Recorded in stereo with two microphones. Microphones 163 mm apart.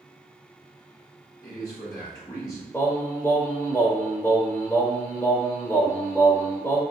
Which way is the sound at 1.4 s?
25° left (ahead or behind).